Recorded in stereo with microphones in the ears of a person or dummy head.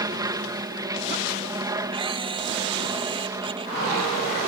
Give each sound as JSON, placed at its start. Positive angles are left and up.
{"t": 0.0, "sound": "an aircraft", "side_deg": -15}
{"t": 1.9, "sound": "a camera shutter", "side_deg": -30}